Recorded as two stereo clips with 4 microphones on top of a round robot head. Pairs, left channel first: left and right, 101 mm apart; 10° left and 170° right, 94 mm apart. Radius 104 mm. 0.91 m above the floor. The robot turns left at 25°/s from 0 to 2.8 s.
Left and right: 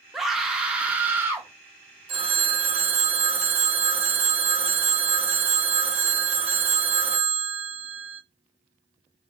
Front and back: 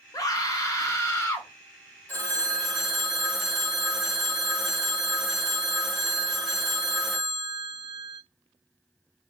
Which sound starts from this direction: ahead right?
A phone ringing, at 2.1 s.